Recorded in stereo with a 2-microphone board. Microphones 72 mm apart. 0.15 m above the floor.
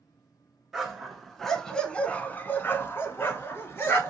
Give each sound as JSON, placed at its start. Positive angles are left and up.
{"t": 0.7, "sound": "a dog barking", "side_deg": -5, "distance_m": 1.0}